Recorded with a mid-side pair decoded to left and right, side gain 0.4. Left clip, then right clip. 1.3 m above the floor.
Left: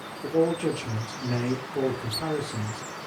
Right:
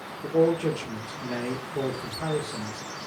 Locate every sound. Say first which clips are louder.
0.2 s a man speaking: right 2 dB; 25° left, 1.1 m